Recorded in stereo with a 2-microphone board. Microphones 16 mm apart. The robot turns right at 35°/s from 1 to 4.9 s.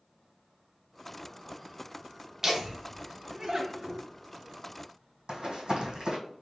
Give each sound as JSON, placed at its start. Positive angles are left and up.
{"t": 2.4, "sound": "laughter", "side_deg": -25, "distance_m": 0.9}
{"t": 5.3, "sound": "running footsteps", "side_deg": -70, "distance_m": 1.6}